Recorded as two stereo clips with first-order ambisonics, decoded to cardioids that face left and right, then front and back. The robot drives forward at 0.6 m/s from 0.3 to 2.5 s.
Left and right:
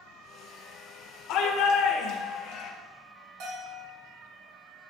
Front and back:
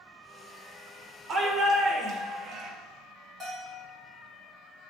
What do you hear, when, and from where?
1.3 s a shout: 115° left, 1.8 m; by 2.7 s 135° left, 2 m
3.4 s a bell: 100° right, 3.5 m